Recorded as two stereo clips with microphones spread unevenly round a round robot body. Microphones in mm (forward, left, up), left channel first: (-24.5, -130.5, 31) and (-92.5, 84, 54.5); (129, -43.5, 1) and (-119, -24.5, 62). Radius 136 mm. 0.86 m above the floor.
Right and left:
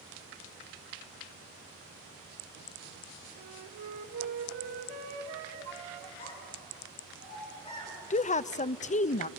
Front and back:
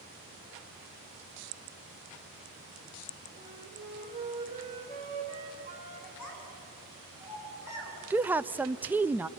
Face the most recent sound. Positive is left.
turn(degrees=-85)